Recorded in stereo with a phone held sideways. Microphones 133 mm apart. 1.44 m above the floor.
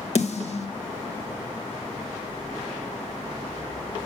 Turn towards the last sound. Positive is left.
turn(degrees=60)  # may be behind; listen again after turning